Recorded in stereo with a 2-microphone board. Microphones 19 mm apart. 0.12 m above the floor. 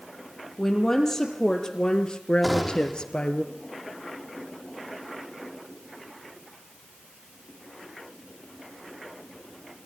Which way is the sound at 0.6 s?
20° left (ahead or behind).